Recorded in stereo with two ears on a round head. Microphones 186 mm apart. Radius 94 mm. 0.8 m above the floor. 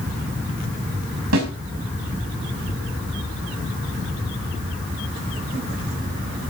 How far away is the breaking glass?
I don't hear breaking glass.